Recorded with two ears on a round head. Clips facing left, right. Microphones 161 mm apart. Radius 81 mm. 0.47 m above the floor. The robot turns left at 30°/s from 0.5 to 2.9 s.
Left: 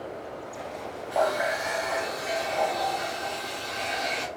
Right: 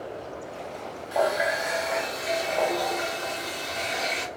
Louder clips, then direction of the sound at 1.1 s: Right 1 dB; 20° right.